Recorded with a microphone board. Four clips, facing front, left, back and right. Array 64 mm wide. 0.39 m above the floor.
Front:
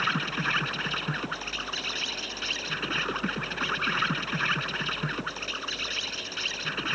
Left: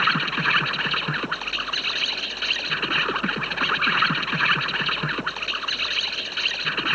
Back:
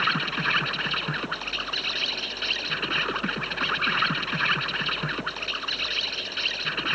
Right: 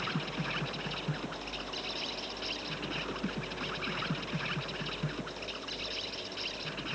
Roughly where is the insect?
Left.